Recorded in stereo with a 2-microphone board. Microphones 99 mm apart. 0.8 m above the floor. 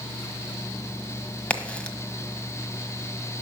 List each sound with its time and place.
1.5 s a crack: 10° left (ahead or behind), 1.4 m